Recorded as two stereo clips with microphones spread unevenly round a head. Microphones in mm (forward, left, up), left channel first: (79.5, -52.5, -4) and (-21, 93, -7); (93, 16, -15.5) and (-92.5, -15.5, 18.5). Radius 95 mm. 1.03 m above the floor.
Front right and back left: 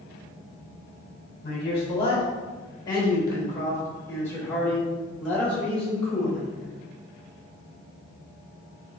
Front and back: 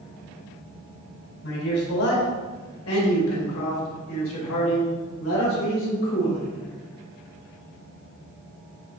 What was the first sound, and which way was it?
A man speaking, straight ahead.